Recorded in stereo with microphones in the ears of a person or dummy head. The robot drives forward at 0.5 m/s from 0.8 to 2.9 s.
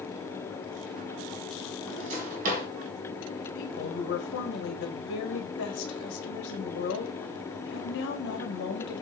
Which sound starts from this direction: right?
A drawer, at 1.8 s.